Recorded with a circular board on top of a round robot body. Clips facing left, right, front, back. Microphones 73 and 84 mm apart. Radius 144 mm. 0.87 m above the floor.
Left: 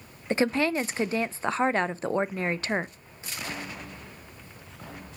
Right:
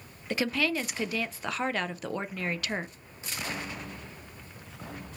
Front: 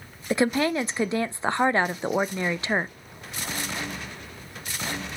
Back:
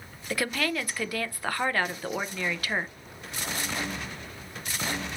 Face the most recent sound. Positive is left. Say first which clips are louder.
# left 4 dB, front 7 dB
turn(degrees=50)